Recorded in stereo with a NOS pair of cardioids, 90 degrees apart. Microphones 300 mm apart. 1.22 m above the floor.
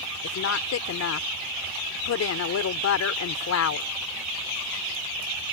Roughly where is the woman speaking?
Ahead left.